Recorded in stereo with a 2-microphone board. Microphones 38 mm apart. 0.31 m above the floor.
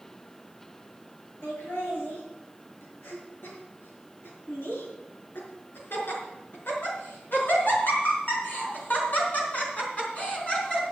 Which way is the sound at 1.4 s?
80° left.